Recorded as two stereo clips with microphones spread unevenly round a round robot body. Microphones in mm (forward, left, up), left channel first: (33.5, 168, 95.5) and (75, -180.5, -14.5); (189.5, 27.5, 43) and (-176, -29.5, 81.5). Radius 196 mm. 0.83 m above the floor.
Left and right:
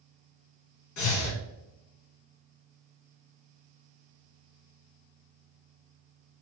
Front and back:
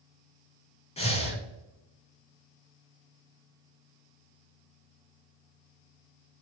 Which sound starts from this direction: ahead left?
Breathing, at 1.0 s.